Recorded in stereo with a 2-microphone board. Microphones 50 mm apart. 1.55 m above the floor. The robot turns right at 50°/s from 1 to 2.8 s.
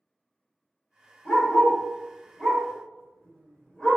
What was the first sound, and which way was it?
A dog barking, 15° left (ahead or behind).